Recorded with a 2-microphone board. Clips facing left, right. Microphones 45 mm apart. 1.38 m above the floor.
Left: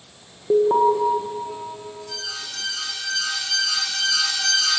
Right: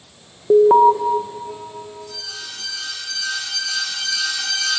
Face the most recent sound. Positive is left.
turn(degrees=85)